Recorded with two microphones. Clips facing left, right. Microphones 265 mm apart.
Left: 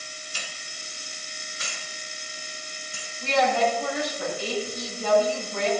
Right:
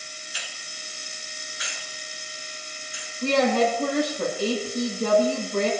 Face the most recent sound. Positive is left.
turn(degrees=-50)  # may be behind; listen again after turning